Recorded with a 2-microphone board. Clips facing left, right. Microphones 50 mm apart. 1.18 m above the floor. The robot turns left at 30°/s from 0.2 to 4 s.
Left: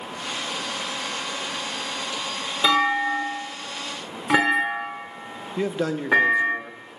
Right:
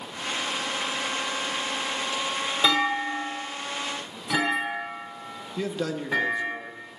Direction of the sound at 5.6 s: 20° left (ahead or behind).